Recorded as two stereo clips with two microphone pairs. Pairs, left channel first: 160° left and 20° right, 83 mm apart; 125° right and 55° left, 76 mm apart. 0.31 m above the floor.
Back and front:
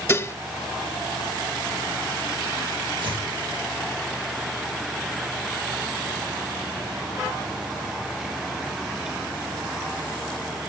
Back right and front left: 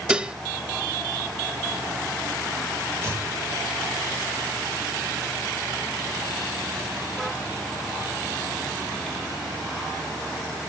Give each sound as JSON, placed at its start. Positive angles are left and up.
{"t": 0.1, "sound": "dishes clattering", "azimuth_deg": 125, "distance_m": 0.7}
{"t": 3.0, "sound": "chopping", "azimuth_deg": -5, "distance_m": 7.0}